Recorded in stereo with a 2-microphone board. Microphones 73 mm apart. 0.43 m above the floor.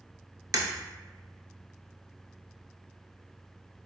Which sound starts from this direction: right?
Breaking glass, at 0.5 s.